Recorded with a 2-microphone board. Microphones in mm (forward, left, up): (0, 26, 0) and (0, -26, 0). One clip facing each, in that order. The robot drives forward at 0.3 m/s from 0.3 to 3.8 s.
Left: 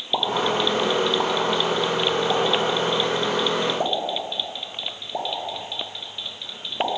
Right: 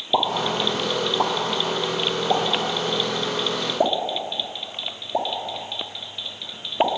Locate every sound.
0.1 s a pop: 15° right (ahead or behind), 2 m; by 6.9 s 10° right (ahead or behind), 3 m